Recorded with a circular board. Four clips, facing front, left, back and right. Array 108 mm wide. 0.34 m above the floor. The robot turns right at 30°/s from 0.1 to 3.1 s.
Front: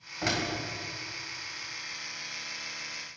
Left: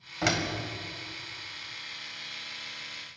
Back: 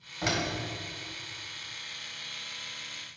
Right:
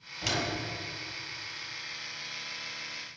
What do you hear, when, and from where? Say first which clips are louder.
0.2 s a door slam: left 4 dB, even; 85° left, 1.3 m; by 0.5 s 95° left, 1.3 m